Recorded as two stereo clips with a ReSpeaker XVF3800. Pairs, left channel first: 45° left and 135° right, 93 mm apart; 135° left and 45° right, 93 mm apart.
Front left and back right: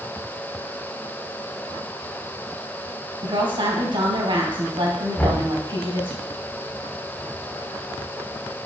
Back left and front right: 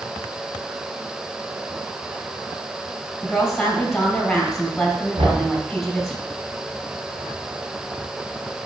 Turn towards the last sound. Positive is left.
turn(degrees=-25)